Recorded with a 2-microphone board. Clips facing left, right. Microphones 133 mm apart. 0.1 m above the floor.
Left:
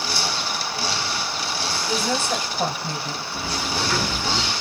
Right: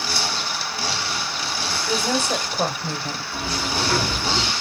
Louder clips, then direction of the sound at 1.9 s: Right 2 dB; 30° right (ahead or behind).